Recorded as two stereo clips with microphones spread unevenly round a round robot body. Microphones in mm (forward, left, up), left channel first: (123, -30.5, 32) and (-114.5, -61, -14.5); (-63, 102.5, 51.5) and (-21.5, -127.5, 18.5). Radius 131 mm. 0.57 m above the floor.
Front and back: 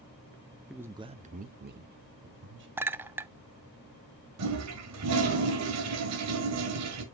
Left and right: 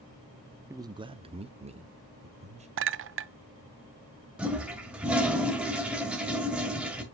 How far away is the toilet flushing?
About 1.8 m.